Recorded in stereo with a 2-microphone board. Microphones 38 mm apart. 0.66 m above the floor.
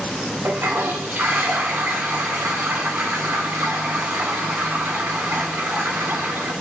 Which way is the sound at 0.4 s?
55° right (ahead or behind).